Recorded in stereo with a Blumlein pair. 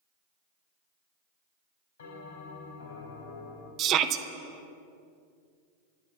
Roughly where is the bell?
Ahead left.